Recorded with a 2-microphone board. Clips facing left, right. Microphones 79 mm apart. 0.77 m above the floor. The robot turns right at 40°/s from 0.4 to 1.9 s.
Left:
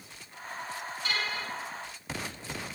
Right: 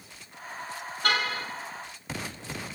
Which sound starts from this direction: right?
A car horn, at 1.0 s.